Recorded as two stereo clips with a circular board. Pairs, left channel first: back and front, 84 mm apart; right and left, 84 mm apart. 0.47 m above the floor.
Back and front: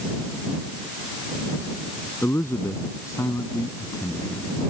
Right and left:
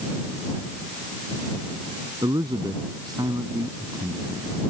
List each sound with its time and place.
2.2 s a man speaking: 120° left; by 4.5 s 140° left